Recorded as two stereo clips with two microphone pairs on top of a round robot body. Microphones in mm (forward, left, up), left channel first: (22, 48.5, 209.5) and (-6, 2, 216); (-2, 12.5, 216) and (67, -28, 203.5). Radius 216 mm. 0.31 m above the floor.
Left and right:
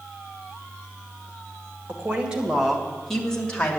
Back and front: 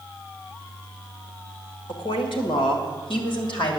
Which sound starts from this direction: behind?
A woman speaking, at 1.9 s.